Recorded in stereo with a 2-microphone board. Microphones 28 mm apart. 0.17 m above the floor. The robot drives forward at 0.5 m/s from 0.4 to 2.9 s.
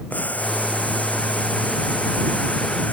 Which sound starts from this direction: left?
Boiling, at 0.1 s.